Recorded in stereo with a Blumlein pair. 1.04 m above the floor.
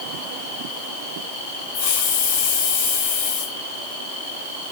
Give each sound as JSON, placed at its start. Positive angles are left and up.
{"t": 1.7, "sound": "a hiss", "azimuth_deg": 55, "distance_m": 4.0}